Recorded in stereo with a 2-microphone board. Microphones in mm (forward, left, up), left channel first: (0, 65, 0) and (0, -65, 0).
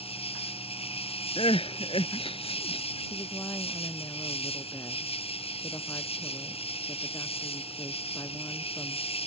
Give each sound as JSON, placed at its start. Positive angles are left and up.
{"t": 0.0, "sound": "an insect", "side_deg": 50}
{"t": 1.4, "sound": "crying", "side_deg": 45}
{"t": 3.1, "sound": "a woman speaking", "side_deg": 25}